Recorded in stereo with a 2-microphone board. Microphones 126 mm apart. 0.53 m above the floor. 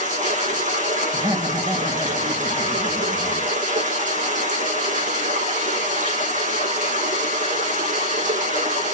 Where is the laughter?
35° right (ahead or behind), 2.5 m.